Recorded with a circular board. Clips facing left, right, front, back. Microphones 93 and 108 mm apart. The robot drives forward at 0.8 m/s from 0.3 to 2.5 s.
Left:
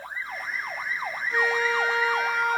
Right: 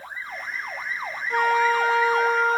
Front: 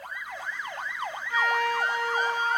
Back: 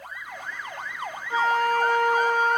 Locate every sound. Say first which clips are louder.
1.3 s a flute: right 5 dB, back 4 dB; 120° right, 1.2 m; by 2.6 s 150° right, 1.8 m